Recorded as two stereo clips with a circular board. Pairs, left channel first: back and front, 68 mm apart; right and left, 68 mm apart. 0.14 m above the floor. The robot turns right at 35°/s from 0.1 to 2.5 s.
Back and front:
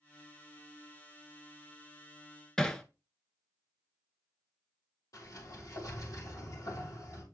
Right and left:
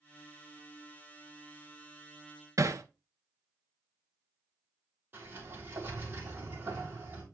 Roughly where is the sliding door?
Behind left.